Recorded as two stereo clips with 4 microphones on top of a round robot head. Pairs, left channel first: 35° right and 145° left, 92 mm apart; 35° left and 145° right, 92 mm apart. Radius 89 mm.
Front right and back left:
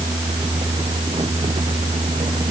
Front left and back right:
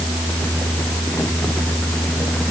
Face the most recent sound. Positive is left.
No sound to turn to.